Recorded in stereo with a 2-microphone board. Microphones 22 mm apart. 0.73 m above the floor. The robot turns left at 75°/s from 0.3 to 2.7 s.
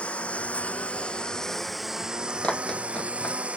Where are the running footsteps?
60° left (ahead or behind); by 3.4 s 45° left (ahead or behind).